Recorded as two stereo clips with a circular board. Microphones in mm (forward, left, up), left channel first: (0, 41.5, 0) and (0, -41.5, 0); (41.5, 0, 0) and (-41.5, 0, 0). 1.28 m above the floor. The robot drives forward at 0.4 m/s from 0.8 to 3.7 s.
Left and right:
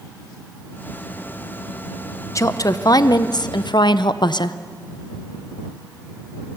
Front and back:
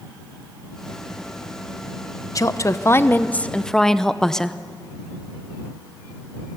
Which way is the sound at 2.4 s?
45° left.